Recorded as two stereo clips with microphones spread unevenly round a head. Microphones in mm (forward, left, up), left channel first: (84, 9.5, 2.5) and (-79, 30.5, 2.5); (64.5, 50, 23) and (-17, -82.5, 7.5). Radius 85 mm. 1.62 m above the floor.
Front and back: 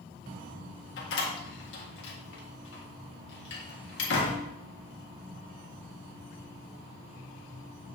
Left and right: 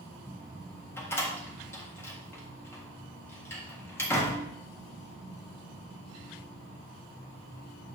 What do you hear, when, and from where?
1.0 s a door slam: 15° right, 1.7 m